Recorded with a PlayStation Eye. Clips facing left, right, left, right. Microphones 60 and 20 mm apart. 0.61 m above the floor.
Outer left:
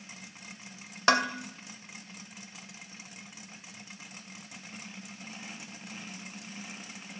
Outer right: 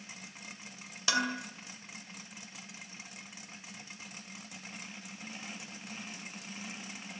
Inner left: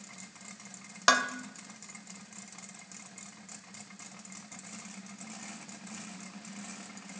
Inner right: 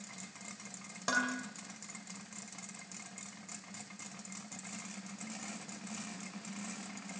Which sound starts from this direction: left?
Dishes clattering, at 1.1 s.